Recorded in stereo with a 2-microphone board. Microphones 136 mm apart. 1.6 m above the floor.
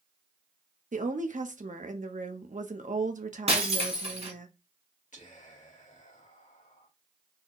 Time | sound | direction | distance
0.9 | a woman speaking | 70° right (ahead or behind) | 0.7 m
3.5 | breaking glass | 50° right (ahead or behind) | 1.5 m
5.1 | whispering | 65° left (ahead or behind) | 1.5 m